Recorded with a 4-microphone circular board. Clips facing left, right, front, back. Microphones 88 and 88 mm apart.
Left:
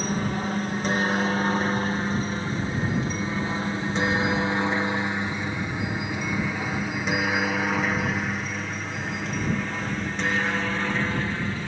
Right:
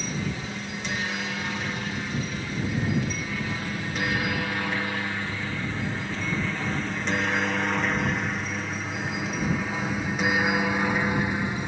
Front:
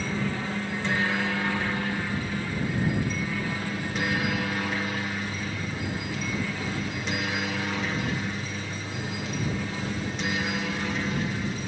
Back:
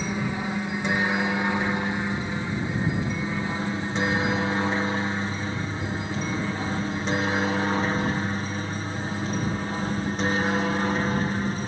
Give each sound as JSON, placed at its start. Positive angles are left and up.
{"t": 0.0, "sound": "a helicopter", "azimuth_deg": 110}